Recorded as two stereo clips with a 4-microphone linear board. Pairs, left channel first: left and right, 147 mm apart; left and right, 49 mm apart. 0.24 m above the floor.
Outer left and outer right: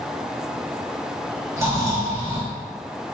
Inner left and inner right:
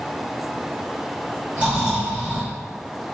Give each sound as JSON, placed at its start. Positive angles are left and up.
{"t": 1.6, "sound": "snoring", "side_deg": -20, "distance_m": 1.7}